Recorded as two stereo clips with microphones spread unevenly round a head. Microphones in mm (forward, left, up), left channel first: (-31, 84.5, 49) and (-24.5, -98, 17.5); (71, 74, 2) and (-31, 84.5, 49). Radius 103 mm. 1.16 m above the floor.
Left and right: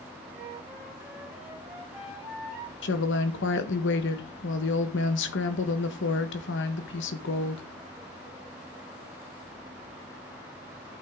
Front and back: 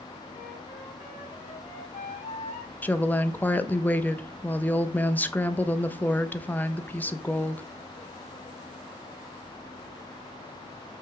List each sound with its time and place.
0.3 s a flute: straight ahead, 5 m
2.8 s a woman speaking: 60° left, 1.3 m